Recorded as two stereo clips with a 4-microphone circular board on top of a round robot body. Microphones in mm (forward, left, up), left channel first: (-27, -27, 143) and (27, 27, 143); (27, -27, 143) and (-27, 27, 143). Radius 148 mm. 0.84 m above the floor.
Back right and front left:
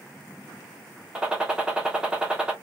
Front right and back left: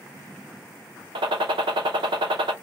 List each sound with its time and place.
1.1 s a gunshot: 125° left, 0.7 m